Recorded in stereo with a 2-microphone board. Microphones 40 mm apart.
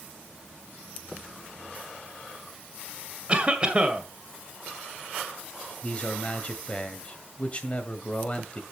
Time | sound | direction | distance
3.3 | a cough | 25° right (ahead or behind) | 1.8 m
5.8 | a man speaking | 30° left (ahead or behind) | 1.6 m